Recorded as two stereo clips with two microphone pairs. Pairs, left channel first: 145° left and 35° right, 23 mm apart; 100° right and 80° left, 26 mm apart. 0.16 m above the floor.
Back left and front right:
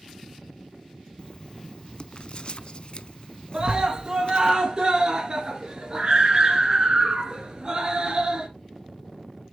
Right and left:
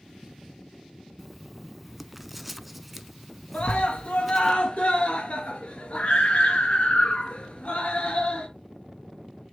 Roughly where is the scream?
Right.